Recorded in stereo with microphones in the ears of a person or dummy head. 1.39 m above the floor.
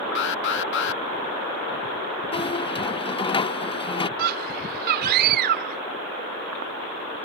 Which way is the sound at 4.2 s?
55° right (ahead or behind).